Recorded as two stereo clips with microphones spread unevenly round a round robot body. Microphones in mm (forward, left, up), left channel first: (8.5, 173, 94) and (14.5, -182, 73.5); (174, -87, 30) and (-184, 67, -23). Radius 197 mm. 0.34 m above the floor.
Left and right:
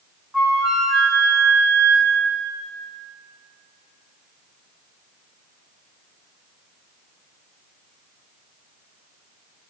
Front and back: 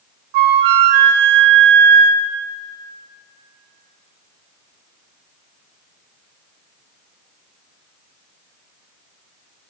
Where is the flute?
Straight behind, 0.7 m.